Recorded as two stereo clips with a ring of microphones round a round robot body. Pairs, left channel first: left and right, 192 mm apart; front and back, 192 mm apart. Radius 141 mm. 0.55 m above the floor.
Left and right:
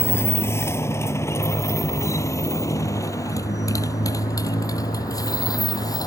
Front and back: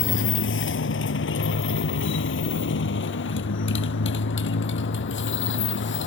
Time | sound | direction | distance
0.0 | a motorcycle | 10° left | ?